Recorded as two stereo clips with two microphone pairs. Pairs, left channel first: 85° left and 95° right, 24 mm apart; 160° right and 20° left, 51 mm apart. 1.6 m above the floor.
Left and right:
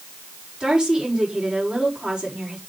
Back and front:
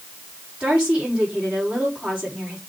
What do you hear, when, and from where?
0.6 s a woman speaking: 40° right, 4.5 m